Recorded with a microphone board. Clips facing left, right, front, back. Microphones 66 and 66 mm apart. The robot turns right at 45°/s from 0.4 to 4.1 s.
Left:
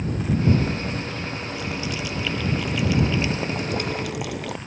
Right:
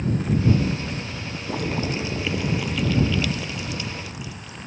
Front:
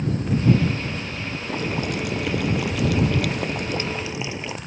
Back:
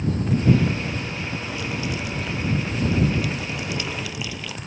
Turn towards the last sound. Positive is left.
turn(degrees=65)